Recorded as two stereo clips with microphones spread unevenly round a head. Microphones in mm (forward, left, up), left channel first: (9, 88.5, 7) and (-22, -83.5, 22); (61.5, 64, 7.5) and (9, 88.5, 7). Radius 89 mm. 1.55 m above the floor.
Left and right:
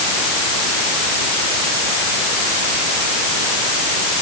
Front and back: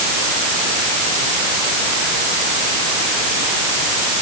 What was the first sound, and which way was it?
Only background noise.